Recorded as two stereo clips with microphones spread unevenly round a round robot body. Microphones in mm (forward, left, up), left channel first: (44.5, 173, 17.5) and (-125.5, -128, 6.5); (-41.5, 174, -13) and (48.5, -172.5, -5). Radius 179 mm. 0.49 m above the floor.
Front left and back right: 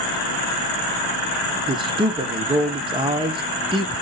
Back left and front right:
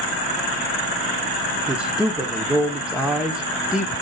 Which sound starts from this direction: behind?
A man speaking, at 1.7 s.